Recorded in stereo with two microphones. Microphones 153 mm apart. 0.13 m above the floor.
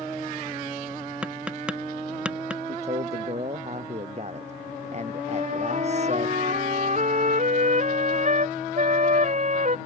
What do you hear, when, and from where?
1.2 s tapping: 5° right (ahead or behind)
2.7 s a man speaking: 45° right (ahead or behind)
5.3 s a flute: 50° right (ahead or behind)